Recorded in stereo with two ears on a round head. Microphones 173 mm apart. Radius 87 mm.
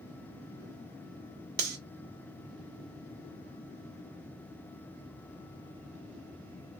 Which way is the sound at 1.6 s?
55° right (ahead or behind).